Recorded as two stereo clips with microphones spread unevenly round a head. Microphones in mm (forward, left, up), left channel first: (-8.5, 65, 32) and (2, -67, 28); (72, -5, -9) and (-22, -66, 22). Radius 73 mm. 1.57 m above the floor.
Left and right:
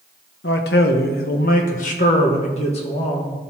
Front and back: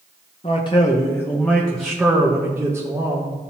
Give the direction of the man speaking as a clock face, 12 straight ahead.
9 o'clock.